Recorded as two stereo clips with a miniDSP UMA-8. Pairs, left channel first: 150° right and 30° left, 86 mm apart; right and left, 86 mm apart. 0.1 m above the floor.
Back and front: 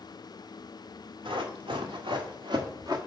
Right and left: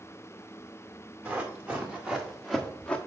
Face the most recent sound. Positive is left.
turn(degrees=-10)